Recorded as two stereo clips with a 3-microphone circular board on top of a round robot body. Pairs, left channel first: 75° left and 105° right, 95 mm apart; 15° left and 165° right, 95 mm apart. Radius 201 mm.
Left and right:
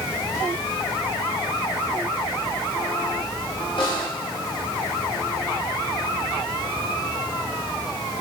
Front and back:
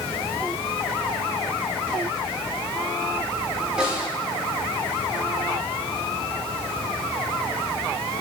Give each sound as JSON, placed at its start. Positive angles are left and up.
{"t": 3.8, "sound": "a snare drum", "azimuth_deg": 110, "distance_m": 1.7}